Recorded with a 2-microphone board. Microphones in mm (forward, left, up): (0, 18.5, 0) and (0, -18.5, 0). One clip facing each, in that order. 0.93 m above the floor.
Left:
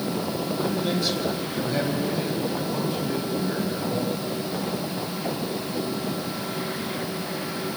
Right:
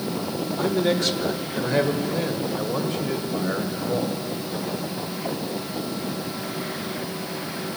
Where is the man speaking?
80° right, 3.5 m; by 4.2 s 70° right (ahead or behind), 5.5 m.